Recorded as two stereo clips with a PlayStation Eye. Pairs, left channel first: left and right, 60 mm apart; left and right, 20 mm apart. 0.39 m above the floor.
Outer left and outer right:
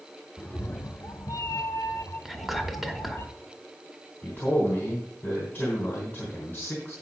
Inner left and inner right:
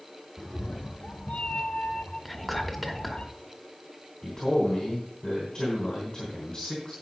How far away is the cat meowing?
About 0.8 m.